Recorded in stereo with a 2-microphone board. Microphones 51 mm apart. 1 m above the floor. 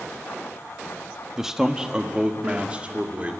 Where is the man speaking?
5° right (ahead or behind), 1.4 m; by 3.3 s 25° right (ahead or behind), 2.5 m.